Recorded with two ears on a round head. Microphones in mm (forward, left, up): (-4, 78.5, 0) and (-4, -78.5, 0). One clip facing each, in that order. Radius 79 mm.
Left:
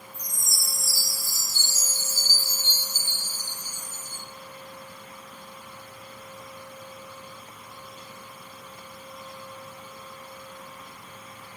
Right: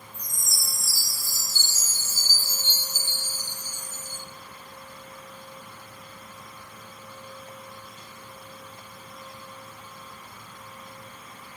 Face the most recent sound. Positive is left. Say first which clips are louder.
# left 1 dB
turn(degrees=-80)